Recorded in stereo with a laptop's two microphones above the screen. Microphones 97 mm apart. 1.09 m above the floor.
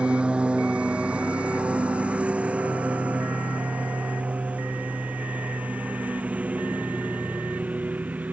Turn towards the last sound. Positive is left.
turn(degrees=-15)  # may be behind; listen again after turning